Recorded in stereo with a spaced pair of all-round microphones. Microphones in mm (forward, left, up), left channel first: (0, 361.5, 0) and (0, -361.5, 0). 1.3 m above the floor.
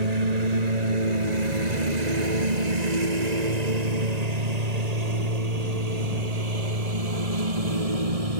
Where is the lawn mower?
65° right (ahead or behind); by 8.4 s 55° right (ahead or behind).